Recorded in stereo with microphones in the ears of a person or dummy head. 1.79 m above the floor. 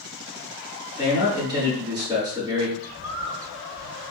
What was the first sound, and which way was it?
A man speaking, 15° right (ahead or behind).